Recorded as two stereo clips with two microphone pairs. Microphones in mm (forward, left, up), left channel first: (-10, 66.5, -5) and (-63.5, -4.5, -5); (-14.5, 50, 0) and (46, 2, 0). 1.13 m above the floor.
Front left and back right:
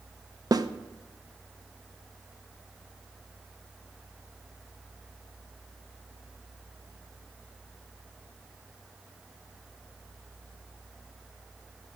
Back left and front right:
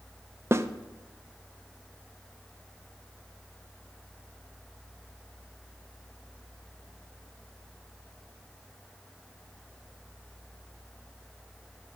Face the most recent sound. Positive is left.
turn(degrees=-90)